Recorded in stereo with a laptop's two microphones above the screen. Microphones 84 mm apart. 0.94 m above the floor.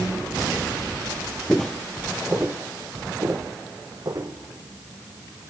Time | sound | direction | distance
1.5 | footsteps | 10° left (ahead or behind) | 1.2 m